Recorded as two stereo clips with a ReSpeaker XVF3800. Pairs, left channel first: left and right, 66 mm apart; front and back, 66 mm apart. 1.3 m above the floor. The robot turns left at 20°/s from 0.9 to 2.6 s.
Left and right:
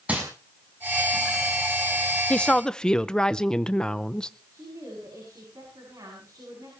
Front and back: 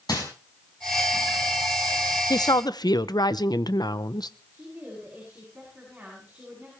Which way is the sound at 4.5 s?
105° right.